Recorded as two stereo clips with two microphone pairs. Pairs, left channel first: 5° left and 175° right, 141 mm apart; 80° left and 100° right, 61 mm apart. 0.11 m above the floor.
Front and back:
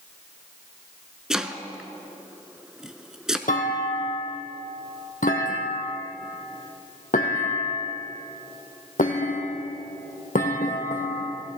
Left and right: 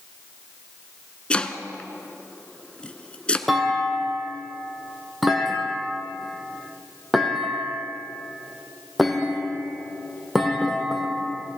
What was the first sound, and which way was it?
Chopping, 95° left.